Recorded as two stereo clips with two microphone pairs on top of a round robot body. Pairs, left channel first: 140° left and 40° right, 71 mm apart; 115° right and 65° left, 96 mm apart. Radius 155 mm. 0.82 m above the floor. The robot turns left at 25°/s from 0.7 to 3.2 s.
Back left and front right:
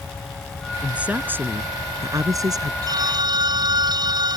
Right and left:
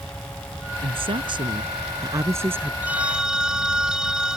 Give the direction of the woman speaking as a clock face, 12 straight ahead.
11 o'clock.